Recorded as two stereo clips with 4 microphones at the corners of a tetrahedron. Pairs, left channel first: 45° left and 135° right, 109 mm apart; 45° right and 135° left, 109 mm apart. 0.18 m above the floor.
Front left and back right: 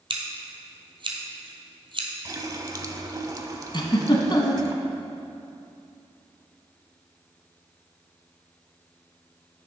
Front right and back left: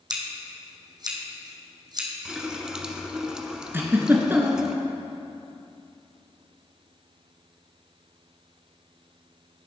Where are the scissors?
175° right, 1.6 m.